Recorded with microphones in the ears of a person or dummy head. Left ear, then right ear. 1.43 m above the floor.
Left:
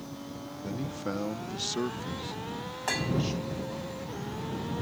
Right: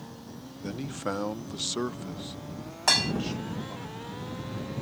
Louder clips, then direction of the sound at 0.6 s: Right 3 dB; 40° right (ahead or behind).